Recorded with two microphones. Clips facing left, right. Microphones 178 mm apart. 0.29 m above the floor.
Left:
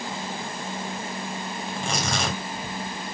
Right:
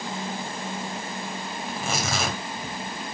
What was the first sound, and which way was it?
Tearing paper, 5° right (ahead or behind).